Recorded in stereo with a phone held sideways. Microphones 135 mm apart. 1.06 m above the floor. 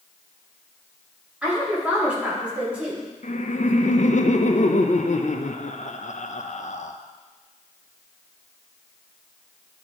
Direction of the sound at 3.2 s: 65° left (ahead or behind).